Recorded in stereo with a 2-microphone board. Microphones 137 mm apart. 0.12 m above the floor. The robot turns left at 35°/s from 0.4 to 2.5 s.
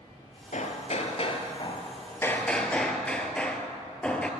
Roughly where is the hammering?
Left.